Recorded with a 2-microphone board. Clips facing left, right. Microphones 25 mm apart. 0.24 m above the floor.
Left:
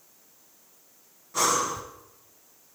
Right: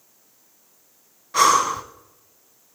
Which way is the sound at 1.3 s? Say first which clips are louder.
Right 8 dB; 60° right (ahead or behind).